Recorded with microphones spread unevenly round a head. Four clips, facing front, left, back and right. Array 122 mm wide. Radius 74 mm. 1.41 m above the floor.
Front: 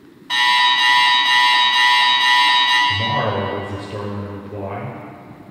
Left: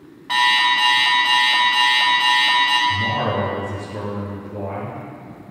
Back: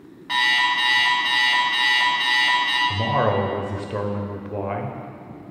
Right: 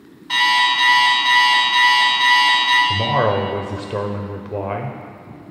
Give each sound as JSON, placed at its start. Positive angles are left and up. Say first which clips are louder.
{"t": 0.3, "sound": "an alarm clock", "louder": "even, front 5 dB", "azimuth_deg": 115, "distance_m": 1.6}
{"t": 2.9, "sound": "a man speaking", "louder": "right 4 dB, even", "azimuth_deg": -110, "distance_m": 0.8}